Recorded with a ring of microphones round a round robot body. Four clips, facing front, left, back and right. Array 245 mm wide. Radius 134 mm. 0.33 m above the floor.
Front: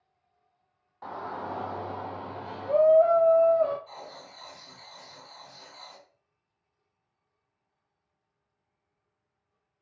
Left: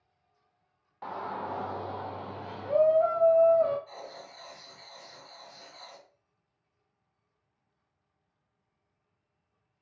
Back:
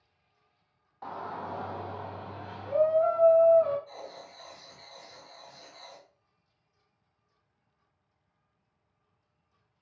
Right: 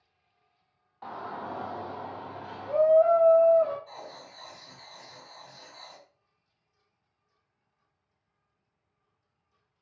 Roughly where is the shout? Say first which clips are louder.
Left 2 dB, front 2 dB; left.